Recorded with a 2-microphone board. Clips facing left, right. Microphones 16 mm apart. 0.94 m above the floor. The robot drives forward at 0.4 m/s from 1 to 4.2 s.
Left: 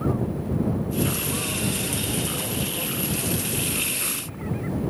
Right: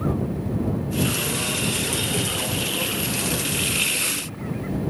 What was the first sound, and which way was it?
Only background noise.